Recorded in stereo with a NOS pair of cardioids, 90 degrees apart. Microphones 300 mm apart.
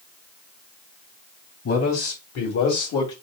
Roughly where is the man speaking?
Ahead left.